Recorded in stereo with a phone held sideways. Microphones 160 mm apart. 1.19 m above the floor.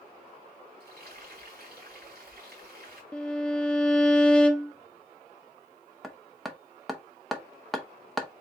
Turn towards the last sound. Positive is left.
turn(degrees=0)  # may be behind; listen again after turning